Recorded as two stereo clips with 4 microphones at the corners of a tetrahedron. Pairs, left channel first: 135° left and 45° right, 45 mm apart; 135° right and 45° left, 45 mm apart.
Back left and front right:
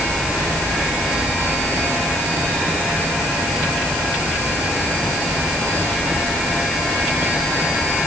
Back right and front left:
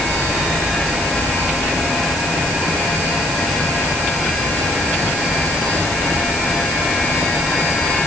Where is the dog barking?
No dog barking in this recording.